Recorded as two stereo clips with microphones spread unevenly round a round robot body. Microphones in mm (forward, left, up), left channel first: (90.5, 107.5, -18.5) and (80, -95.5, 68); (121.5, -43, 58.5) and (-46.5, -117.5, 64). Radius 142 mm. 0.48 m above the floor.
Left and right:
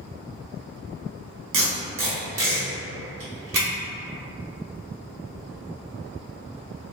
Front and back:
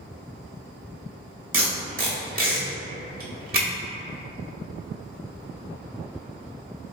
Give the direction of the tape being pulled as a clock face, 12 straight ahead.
5 o'clock.